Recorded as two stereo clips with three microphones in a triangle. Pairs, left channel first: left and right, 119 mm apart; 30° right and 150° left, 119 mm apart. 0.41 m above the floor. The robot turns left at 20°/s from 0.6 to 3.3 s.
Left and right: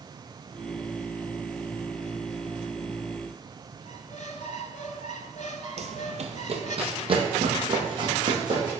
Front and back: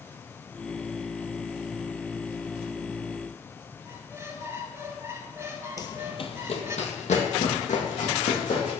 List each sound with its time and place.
3.9 s a squeak: 80° left, 0.7 m
5.8 s running footsteps: 85° right, 0.7 m; by 8.7 s 35° right, 2.0 m